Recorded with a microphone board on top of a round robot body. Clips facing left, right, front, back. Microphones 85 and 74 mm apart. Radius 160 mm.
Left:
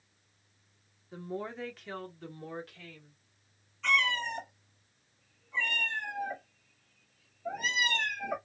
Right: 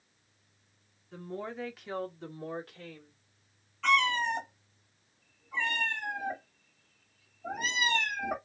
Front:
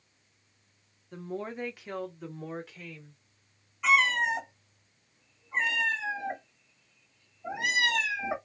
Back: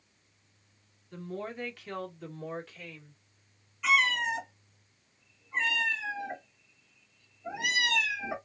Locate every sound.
1.1 s a woman speaking: 25° left, 1.2 m; by 3.2 s 85° right, 1.5 m
3.8 s a cat meowing: 55° right, 1.2 m